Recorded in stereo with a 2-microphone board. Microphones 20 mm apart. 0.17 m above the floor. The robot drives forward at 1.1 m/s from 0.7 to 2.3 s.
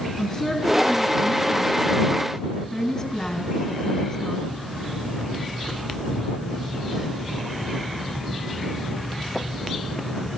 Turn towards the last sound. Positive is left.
turn(degrees=25)  # may be behind; listen again after turning